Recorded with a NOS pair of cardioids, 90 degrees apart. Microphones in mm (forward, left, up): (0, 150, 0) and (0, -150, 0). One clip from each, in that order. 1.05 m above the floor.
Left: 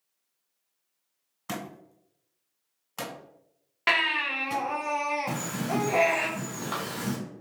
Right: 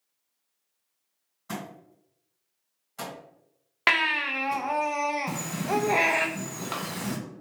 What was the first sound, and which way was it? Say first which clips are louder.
A thud: left 1 dB; 70° left.